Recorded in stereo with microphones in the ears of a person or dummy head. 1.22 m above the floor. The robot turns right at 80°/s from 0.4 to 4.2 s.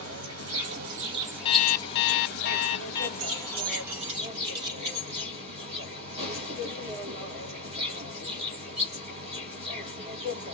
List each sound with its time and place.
0.0 s an insect: 90° right, 3 m; by 10.6 s 145° right, 3 m
1.4 s an alarm clock: 35° left, 0.6 m; by 3.1 s 165° left, 0.6 m
3.2 s keys jangling: 75° right (ahead or behind), 2.0 m; by 5.3 s 25° right (ahead or behind), 2.0 m